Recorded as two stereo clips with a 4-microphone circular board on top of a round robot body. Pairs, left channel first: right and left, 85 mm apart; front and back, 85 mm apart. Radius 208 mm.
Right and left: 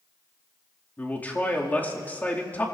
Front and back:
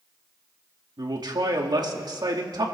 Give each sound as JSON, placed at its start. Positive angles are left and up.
{"t": 1.0, "sound": "a man speaking", "azimuth_deg": -155, "distance_m": 1.9}